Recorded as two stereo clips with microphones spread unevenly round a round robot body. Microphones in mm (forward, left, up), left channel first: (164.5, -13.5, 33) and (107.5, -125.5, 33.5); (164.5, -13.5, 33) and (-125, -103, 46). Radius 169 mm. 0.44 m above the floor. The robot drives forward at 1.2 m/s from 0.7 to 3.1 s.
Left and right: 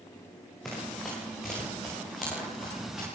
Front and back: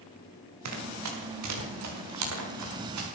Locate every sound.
0.7 s running footsteps: 150° left, 6 m; by 3.1 s 155° left, 9.5 m